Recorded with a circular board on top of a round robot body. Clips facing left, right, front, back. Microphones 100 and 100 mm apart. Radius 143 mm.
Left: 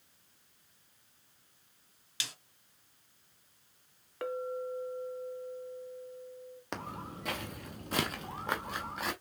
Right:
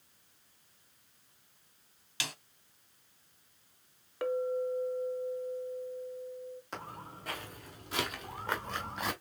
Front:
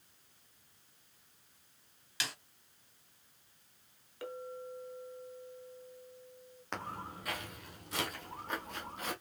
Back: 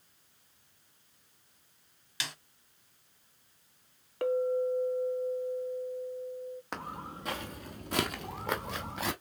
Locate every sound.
2.2 s a snare drum: 85° right, 1.1 m
4.2 s a clink: 175° right, 0.9 m
6.7 s footsteps: 100° left, 1.0 m; by 9.1 s 175° right, 1.0 m